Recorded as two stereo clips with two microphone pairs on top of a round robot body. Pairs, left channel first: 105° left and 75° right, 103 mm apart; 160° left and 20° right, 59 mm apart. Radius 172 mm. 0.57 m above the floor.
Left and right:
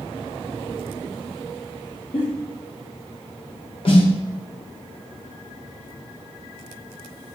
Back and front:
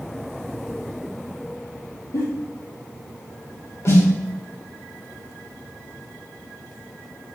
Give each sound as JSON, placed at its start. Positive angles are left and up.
{"t": 2.1, "sound": "a giggle", "azimuth_deg": 130, "distance_m": 3.5}
{"t": 3.9, "sound": "a snare drum", "azimuth_deg": 120, "distance_m": 3.0}